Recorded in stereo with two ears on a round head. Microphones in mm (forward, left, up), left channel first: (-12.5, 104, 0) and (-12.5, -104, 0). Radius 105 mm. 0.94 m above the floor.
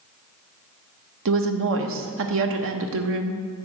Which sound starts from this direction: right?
A woman speaking, at 1.2 s.